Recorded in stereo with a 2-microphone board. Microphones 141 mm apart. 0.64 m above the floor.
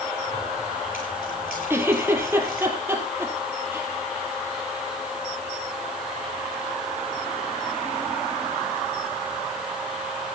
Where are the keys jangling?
85° left, 9.5 m; by 2.7 s 80° left, 8 m.